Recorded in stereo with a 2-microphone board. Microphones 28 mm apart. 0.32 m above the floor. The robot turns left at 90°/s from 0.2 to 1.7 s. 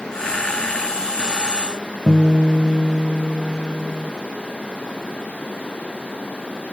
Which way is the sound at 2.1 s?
20° right (ahead or behind).